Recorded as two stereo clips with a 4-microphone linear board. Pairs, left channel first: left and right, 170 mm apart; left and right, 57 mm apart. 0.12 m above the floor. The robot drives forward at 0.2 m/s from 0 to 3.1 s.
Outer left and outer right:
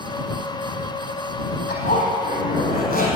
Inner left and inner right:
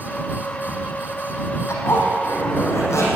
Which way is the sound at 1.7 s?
65° left (ahead or behind).